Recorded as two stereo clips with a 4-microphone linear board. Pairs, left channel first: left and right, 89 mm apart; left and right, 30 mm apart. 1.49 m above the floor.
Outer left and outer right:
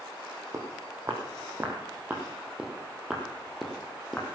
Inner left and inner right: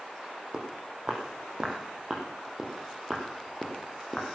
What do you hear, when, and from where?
0.5 s footsteps: 35° right (ahead or behind), 3 m; by 4.3 s 10° left (ahead or behind), 2.5 m